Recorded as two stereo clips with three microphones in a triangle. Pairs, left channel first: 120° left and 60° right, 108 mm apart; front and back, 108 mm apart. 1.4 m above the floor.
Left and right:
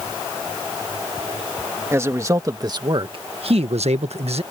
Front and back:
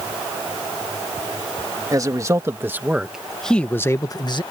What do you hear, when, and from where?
1.9 s a man speaking: 125° right; by 4.4 s 40° right